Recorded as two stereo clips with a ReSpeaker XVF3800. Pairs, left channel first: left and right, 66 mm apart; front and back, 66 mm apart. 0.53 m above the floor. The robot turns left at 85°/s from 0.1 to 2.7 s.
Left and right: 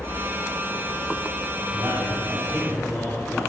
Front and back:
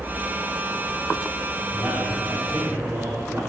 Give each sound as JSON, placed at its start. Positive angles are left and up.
{"t": 1.7, "sound": "a man speaking", "azimuth_deg": -105, "distance_m": 2.5}